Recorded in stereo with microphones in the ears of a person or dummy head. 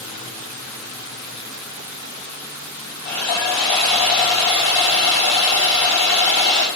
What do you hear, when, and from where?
3.0 s sawing: 35° left (ahead or behind), 2 m